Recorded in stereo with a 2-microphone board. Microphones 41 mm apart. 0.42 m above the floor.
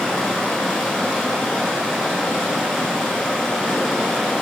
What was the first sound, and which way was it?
Running water, 10° left (ahead or behind).